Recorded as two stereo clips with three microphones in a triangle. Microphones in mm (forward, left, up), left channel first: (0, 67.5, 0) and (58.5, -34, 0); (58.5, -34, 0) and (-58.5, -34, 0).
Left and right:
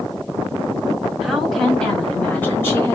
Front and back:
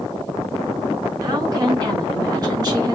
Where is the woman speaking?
145° right, 1.8 m; by 3.0 s 165° left, 1.8 m.